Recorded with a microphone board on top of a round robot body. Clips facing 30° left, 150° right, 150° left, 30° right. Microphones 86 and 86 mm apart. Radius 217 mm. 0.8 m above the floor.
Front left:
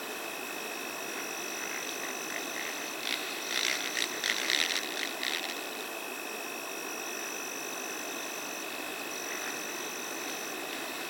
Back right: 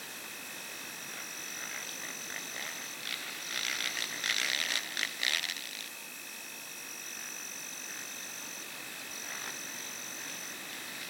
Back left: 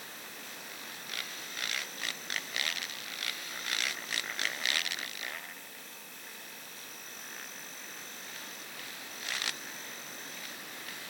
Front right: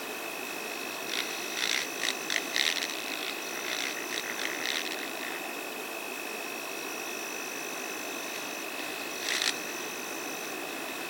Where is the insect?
10° right.